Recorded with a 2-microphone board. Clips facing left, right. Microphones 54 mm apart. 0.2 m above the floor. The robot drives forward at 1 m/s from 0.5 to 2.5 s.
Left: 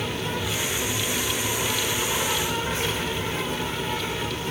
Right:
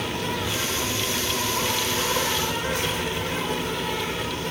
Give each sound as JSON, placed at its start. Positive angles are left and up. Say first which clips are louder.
{"t": 0.0, "sound": "an insect", "louder": "right 1 dB", "side_deg": -65, "distance_m": 9.5}